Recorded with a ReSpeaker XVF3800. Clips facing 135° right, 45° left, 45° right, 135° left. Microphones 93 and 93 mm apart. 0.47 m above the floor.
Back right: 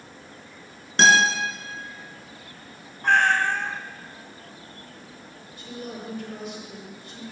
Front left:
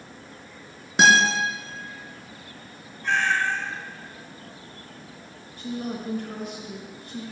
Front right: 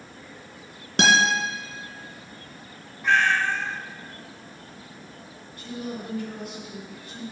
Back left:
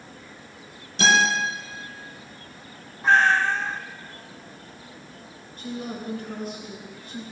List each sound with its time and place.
1.0 s a guitar: 35° right, 3 m
3.0 s a cat meowing: 170° right, 0.5 m
5.6 s a woman speaking: 80° left, 3.5 m